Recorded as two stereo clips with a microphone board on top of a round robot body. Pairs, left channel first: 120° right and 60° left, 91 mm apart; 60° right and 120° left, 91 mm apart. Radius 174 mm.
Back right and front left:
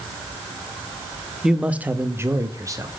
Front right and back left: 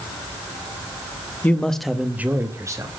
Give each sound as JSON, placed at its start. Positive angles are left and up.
{"t": 1.4, "sound": "a man speaking", "azimuth_deg": -20, "distance_m": 1.1}